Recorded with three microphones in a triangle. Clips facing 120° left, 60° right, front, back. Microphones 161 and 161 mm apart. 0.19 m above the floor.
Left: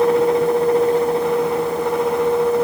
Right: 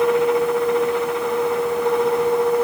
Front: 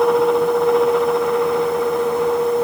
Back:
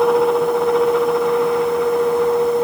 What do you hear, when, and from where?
Only background noise.